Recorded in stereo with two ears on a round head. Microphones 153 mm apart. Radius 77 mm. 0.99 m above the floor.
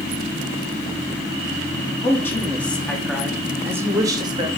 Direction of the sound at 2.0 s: 20° left (ahead or behind).